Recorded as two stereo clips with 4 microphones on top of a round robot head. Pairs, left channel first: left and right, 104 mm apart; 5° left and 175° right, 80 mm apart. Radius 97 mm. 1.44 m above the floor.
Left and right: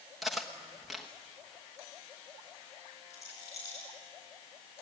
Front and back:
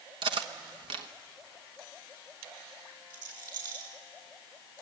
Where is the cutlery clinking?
Straight behind, 1.0 m.